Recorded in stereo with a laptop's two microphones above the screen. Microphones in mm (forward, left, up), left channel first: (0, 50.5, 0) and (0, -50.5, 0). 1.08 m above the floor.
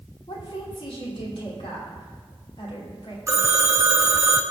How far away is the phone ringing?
About 0.7 m.